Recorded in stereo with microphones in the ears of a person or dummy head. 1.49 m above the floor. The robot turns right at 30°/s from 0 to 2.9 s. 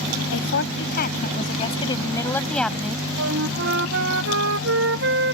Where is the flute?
70° right (ahead or behind).